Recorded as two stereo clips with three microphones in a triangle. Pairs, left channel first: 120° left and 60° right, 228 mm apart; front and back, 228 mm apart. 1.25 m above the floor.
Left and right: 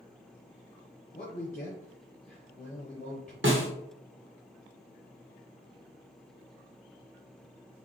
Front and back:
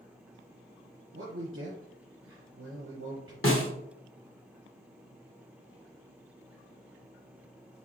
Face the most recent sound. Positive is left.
turn(degrees=-25)